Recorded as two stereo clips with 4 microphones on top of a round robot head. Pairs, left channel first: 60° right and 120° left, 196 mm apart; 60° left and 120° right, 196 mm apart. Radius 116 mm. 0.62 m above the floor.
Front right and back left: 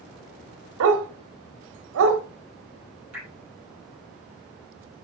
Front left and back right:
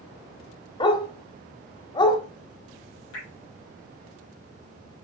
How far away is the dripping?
About 3 m.